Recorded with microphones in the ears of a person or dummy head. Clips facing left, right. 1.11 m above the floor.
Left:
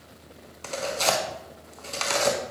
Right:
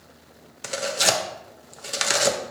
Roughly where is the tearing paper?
Centre.